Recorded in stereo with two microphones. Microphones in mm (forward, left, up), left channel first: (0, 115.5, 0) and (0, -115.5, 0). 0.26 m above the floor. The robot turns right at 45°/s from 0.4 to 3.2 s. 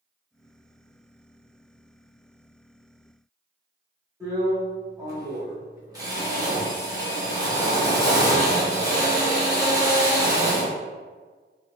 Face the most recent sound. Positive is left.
turn(degrees=-15)  # may be behind; listen again after turning